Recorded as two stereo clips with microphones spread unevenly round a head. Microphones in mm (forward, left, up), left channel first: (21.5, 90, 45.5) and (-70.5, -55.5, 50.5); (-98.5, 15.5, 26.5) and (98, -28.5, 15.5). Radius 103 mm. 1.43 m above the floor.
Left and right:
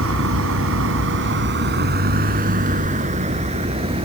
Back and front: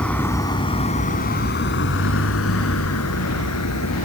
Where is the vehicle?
110° right; by 4.0 s 175° left.